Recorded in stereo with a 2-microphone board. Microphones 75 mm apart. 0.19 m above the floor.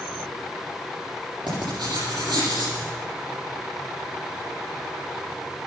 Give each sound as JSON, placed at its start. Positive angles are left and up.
{"t": 1.5, "sound": "writing", "side_deg": -80, "distance_m": 7.5}